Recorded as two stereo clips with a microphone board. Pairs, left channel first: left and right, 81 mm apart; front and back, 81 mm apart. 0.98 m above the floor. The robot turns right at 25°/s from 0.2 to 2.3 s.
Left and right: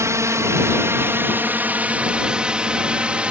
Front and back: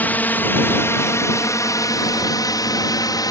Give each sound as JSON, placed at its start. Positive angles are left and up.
{"t": 0.0, "sound": "a drone", "azimuth_deg": -60}